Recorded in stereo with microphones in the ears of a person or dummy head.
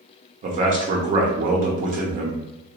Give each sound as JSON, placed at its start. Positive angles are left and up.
{"t": 0.4, "sound": "a man speaking", "side_deg": -45, "distance_m": 0.7}